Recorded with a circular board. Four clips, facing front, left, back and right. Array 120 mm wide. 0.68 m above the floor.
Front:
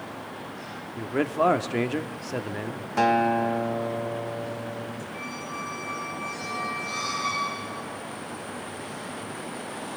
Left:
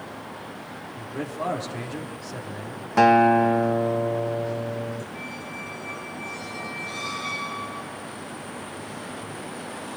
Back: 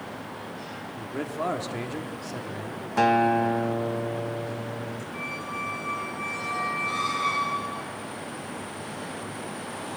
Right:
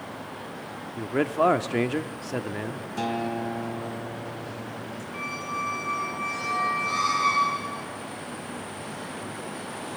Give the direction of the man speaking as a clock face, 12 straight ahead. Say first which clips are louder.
Right 8 dB, front 7 dB; 2 o'clock.